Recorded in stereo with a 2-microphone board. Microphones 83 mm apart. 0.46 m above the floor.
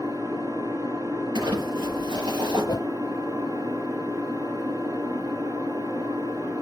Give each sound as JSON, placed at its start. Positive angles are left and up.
{"t": 0.0, "sound": "an engine running", "side_deg": -50, "distance_m": 3.0}
{"t": 1.4, "sound": "crumpling", "side_deg": -85, "distance_m": 7.5}
{"t": 2.6, "sound": "a whoosh", "side_deg": 55, "distance_m": 0.5}